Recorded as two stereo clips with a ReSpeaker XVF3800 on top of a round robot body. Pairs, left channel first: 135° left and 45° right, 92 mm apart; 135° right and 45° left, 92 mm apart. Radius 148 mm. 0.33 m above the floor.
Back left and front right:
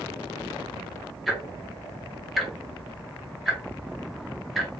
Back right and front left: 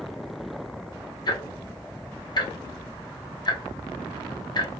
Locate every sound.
1.3 s ticking: 135° right, 1.2 m